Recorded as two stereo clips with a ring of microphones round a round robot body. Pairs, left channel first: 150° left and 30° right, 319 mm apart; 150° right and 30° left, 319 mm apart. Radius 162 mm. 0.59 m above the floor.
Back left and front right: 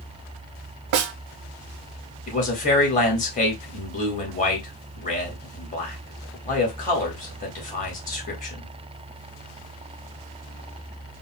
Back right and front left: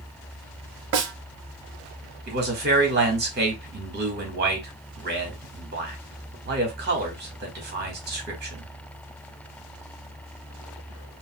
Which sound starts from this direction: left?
A man speaking, at 2.3 s.